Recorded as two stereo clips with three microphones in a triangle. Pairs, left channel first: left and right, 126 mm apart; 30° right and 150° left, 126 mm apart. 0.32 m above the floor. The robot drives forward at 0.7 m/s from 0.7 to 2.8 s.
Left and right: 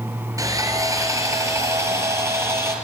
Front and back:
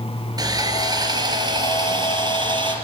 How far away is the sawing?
About 3.5 m.